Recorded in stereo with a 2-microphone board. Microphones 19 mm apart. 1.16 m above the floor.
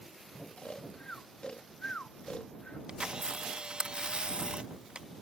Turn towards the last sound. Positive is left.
turn(degrees=-70)  # may be behind; listen again after turning